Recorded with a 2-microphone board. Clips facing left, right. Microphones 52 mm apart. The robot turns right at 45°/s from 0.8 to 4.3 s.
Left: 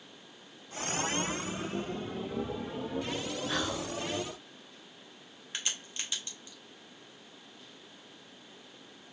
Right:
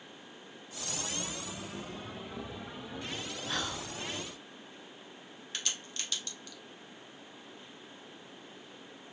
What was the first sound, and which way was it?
Whispering, 5° left (ahead or behind).